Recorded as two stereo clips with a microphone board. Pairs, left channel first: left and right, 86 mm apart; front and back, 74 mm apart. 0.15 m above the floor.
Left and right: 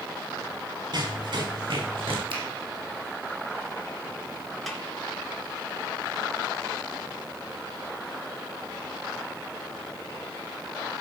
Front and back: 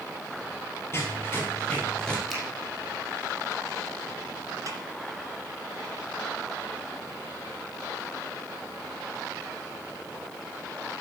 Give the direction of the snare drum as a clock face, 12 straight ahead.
6 o'clock.